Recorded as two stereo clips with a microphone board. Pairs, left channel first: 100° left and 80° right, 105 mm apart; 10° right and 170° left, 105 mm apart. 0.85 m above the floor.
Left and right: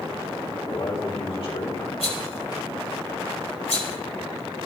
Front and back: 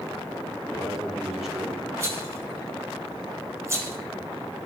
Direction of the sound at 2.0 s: 110° left.